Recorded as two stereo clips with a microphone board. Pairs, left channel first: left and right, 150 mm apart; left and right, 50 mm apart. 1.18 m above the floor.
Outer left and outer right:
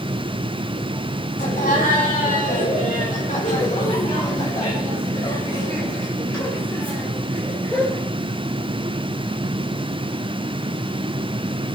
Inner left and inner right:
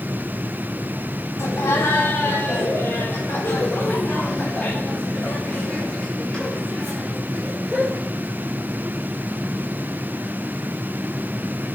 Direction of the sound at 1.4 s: 70° left (ahead or behind).